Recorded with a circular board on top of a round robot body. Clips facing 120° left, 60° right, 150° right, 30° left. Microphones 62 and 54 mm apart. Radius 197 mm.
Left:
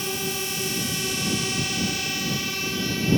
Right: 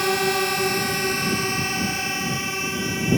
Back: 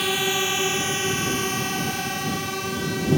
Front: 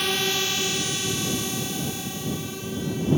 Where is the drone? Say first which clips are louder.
Right 9 dB, back 2 dB; 65° right; by 3.2 s 135° right.